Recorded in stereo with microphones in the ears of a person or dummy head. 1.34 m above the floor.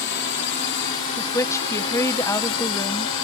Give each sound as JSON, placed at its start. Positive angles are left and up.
{"t": 0.0, "sound": "a drone", "side_deg": 55}
{"t": 1.2, "sound": "a woman speaking", "side_deg": 20}